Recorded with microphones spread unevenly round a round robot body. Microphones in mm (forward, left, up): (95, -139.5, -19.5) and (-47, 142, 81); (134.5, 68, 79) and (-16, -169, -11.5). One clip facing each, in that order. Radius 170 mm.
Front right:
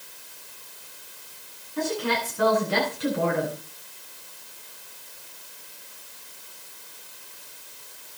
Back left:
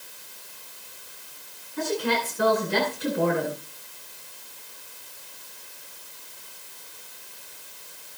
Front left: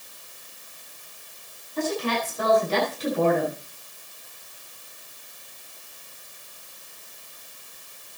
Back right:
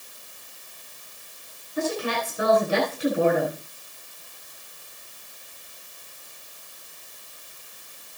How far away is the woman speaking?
About 9.5 m.